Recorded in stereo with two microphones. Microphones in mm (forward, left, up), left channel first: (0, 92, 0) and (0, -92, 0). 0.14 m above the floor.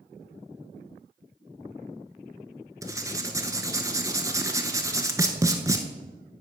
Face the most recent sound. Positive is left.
turn(degrees=-15)  # may be behind; listen again after turning